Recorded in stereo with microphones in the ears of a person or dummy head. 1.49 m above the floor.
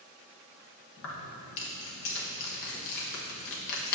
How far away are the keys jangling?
About 1.0 m.